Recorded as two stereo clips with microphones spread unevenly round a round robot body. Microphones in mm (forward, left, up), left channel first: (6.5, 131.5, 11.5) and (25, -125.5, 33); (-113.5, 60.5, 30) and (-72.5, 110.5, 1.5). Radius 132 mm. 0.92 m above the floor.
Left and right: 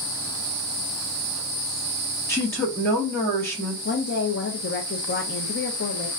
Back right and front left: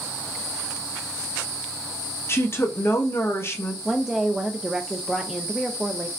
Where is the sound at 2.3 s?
170° left, 1.2 m.